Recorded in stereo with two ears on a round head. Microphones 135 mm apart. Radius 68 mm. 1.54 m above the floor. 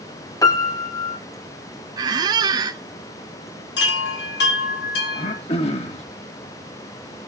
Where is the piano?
25° left (ahead or behind), 1.6 m.